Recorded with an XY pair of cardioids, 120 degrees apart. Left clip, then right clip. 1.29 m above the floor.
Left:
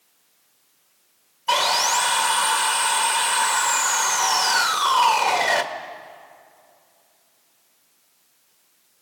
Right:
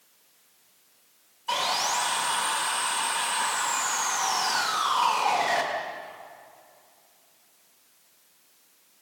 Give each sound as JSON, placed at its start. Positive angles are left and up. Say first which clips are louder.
{"t": 1.5, "sound": "sawing", "louder": "left 7 dB", "azimuth_deg": 45, "distance_m": 1.6}